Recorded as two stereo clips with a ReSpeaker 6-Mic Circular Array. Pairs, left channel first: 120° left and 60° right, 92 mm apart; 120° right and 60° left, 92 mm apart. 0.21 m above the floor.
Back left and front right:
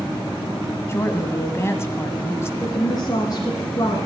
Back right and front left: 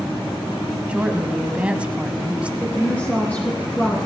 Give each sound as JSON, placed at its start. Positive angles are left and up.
{"t": 0.9, "sound": "a woman speaking", "azimuth_deg": 125, "distance_m": 1.2}
{"t": 2.6, "sound": "a woman speaking", "azimuth_deg": 165, "distance_m": 2.0}